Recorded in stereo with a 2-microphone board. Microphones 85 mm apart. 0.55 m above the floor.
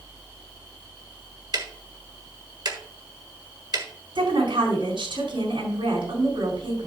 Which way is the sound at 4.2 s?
75° right (ahead or behind).